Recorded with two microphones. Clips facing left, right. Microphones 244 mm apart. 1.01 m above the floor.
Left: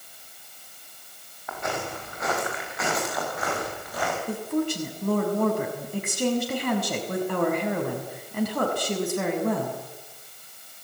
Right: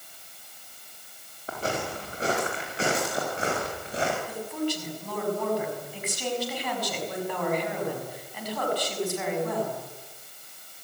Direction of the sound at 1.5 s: 30° right (ahead or behind).